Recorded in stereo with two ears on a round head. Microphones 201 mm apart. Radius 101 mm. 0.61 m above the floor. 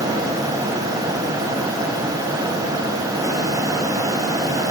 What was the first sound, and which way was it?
Only background noise.